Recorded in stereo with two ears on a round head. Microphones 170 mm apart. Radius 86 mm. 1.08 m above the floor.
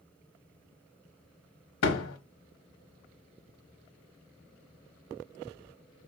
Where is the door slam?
75° left (ahead or behind), 0.9 m.